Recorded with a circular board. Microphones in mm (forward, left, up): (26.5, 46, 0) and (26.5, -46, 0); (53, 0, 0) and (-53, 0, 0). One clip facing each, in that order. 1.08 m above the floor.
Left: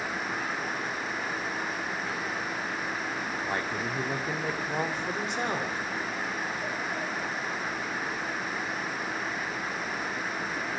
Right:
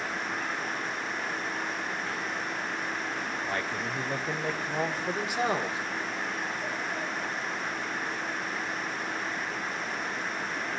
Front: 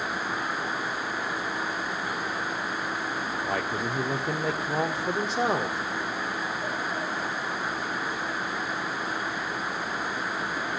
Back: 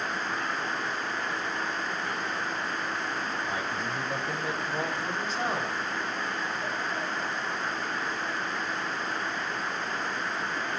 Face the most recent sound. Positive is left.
turn(degrees=-15)